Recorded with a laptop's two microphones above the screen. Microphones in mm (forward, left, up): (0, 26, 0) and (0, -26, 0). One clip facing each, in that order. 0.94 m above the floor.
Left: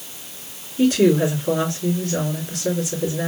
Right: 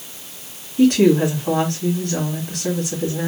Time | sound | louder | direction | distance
0.8 | a woman speaking | right 2 dB | 50° right (ahead or behind) | 2.5 m